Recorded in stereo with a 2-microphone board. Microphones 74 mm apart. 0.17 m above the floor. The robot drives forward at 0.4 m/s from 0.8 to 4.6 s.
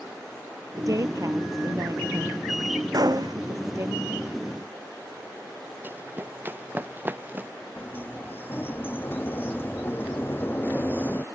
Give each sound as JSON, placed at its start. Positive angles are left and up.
{"t": 0.8, "sound": "a woman speaking", "side_deg": -50}
{"t": 2.9, "sound": "a gunshot", "side_deg": -60}
{"t": 5.8, "sound": "running footsteps", "side_deg": -25}
{"t": 7.8, "sound": "a sliding door", "side_deg": 30}